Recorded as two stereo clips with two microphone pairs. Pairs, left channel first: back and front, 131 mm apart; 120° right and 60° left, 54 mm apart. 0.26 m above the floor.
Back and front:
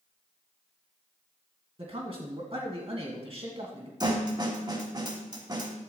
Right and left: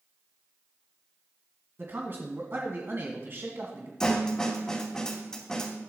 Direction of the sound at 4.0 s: 45° right.